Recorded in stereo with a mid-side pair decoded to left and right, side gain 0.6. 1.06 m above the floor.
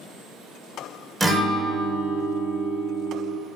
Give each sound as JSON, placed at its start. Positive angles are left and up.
{"t": 1.2, "sound": "a guitar", "azimuth_deg": -15, "distance_m": 0.5}